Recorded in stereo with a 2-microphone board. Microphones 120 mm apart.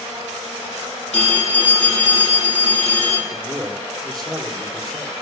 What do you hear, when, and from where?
1.1 s a phone ringing: 65° left (ahead or behind), 4 m
3.3 s a man speaking: centre (ahead or behind), 2.5 m